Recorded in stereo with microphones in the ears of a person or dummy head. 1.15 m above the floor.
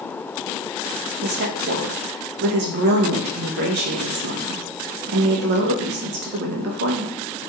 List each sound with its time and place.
1.2 s a woman speaking: 60° right (ahead or behind), 0.7 m